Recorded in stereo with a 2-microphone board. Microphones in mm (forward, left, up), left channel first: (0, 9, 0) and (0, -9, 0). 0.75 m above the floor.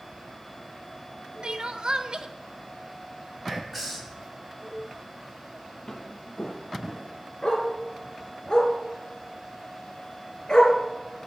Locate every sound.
1.4 s crying: 50° right (ahead or behind), 0.8 m
3.5 s whispering: 10° left (ahead or behind), 5.5 m
5.9 s footsteps: 35° left (ahead or behind), 1.1 m; by 7.1 s 40° left (ahead or behind), 2.5 m
7.4 s a dog barking: 45° left (ahead or behind), 3 m